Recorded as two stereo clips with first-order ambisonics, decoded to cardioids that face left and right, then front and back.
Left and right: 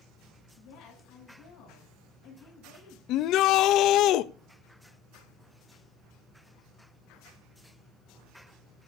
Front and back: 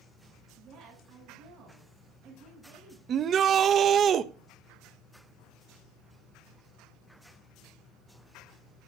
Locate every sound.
0.6 s a woman speaking: 125° left, 7 m
3.1 s a shout: 125° left, 0.5 m